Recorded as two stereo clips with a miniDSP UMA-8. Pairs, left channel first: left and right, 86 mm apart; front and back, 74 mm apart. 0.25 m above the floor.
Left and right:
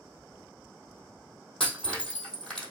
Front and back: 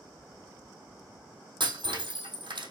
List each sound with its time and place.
1.6 s breaking glass: 175° left, 2.5 m